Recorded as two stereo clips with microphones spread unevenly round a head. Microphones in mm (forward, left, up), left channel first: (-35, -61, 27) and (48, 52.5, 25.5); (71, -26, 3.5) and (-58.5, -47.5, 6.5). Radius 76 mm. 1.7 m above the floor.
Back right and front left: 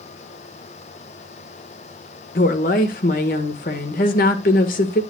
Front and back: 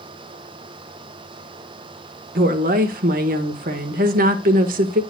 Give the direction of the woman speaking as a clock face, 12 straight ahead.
5 o'clock.